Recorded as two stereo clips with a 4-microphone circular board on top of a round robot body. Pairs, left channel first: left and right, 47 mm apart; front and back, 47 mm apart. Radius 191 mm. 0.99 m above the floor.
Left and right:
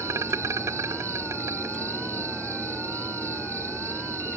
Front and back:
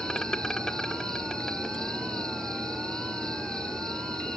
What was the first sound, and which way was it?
An insect, 80° right.